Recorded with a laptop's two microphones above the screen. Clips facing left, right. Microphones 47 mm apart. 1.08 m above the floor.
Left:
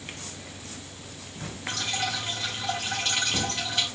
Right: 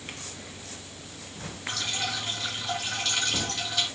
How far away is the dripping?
About 2.5 m.